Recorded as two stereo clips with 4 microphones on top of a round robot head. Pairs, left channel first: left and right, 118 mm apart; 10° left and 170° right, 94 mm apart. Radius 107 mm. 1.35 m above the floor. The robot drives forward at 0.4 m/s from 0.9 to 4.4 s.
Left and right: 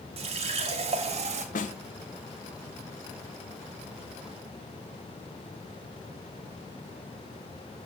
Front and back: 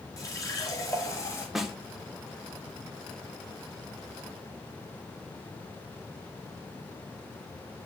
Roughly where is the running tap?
Ahead right.